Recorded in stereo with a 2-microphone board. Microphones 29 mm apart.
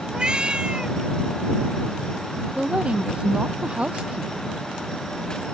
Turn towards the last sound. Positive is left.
turn(degrees=-35)  # may be behind; listen again after turning